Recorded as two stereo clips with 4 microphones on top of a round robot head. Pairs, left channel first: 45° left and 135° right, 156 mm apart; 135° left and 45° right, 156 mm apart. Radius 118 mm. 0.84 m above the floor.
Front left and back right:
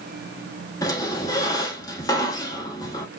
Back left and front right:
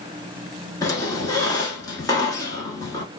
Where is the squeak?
85° left, 0.8 m.